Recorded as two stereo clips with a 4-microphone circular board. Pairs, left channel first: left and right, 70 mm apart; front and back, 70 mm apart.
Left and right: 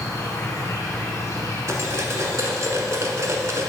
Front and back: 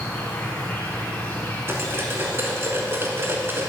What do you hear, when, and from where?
0.0 s an insect: 60° left, 1.8 m
1.7 s cutlery clinking: 125° right, 1.1 m